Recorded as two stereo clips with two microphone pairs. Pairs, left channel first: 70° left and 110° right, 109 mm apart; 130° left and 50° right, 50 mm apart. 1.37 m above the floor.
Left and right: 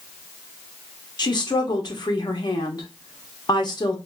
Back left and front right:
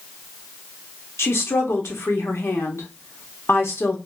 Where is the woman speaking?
115° left, 0.8 m.